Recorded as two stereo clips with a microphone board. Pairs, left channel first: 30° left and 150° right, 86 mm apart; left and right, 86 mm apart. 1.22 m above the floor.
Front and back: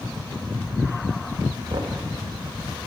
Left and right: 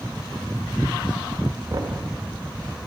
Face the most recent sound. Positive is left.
turn(degrees=-125)